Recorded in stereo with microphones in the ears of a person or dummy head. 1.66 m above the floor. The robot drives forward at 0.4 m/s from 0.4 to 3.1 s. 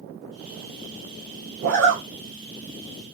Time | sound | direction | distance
1.6 | a zipper | 65° right (ahead or behind) | 1.5 m